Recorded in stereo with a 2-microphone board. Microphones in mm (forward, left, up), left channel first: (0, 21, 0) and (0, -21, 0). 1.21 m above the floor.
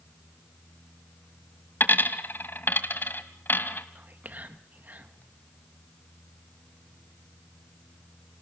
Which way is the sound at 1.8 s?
60° left (ahead or behind).